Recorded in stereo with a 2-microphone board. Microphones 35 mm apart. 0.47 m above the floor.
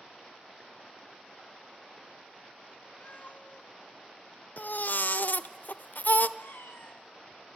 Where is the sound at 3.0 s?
40° left (ahead or behind), 0.8 m.